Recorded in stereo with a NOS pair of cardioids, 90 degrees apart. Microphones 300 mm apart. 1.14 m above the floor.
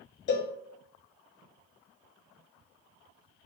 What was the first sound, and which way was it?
A cowbell, 40° left.